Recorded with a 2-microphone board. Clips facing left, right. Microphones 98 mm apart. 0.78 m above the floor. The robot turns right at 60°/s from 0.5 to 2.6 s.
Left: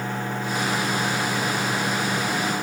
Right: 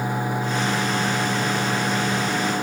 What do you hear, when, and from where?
Only background noise.